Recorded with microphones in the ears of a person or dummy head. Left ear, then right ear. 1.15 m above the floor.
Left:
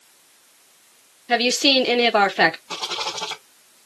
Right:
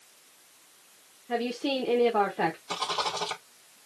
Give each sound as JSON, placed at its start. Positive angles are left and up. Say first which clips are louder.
{"t": 1.3, "sound": "a woman speaking", "louder": "left 12 dB", "side_deg": 75, "distance_m": 0.8}
{"t": 2.7, "sound": "a rattle", "louder": "left 3 dB", "side_deg": -75, "distance_m": 2.5}